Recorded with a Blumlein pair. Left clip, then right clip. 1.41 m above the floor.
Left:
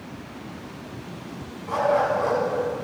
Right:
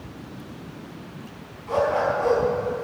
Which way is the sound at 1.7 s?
5° left.